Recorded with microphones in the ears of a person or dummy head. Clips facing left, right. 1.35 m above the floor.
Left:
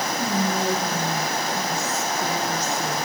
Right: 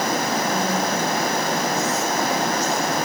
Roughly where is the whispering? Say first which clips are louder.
Right 1 dB; left.